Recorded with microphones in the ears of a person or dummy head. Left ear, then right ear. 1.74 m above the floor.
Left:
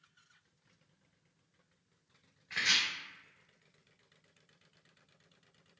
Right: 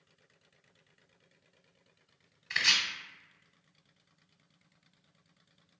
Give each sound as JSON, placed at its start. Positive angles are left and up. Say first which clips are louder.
{"t": 2.5, "sound": "chopping", "louder": "right 3 dB", "side_deg": -55, "distance_m": 0.9}